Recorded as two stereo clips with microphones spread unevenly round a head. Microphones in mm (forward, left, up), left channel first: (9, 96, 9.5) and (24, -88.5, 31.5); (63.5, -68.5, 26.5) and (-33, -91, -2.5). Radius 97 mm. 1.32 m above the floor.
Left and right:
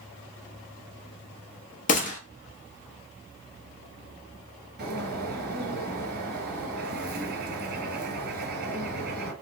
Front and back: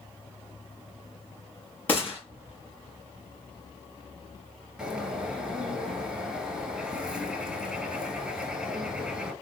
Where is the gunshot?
60° left, 0.8 m.